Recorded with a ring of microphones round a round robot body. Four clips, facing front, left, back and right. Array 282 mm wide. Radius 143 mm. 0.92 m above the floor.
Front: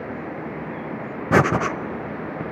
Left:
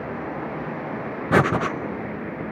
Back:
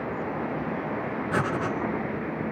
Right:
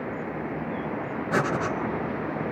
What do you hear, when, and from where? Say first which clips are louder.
1.3 s breathing: left 6 dB, front 10 dB; 35° left, 0.6 m